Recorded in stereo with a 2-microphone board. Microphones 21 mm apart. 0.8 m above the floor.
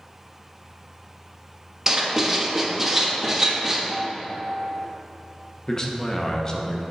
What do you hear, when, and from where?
1.9 s writing: 20° right (ahead or behind), 1.1 m
3.9 s a piano: 35° right (ahead or behind), 0.9 m
5.7 s a man speaking: 30° left (ahead or behind), 0.9 m